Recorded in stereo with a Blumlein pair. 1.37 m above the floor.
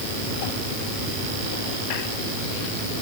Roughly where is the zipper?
I don't hear a zipper.